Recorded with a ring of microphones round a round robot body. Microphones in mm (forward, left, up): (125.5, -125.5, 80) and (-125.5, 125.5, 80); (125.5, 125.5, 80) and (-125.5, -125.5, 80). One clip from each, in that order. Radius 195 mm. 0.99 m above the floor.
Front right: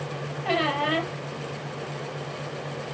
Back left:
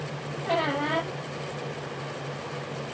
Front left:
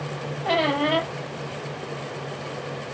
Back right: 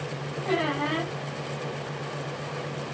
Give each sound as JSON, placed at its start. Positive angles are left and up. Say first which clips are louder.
{"t": 0.4, "sound": "a squeak", "louder": "front right 2 dB, front left 5 dB", "azimuth_deg": 5, "distance_m": 4.5}